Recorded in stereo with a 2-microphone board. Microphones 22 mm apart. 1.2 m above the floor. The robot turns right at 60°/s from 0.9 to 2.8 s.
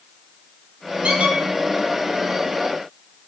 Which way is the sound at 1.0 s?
80° right.